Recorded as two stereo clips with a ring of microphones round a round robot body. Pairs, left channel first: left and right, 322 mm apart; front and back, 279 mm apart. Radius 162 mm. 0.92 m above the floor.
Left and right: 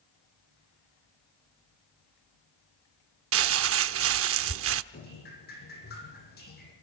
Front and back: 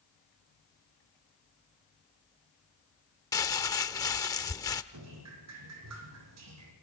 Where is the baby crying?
I don't hear a baby crying.